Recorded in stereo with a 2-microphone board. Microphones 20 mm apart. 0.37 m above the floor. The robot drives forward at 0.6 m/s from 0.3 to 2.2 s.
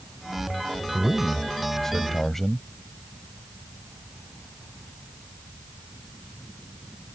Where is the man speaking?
25° left (ahead or behind); by 2.6 s 20° left (ahead or behind).